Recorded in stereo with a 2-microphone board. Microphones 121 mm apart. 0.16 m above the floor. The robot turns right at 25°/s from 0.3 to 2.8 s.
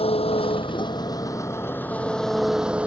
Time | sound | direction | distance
0.0 | an engine running | 125° left | ?